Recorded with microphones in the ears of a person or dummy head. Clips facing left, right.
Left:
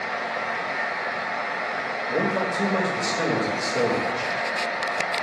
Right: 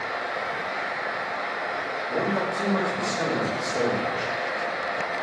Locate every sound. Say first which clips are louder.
0.0 s a fan: left 1 dB; 15° left (ahead or behind), 0.7 m
2.1 s a man speaking: left 2 dB; 25° left (ahead or behind), 0.7 m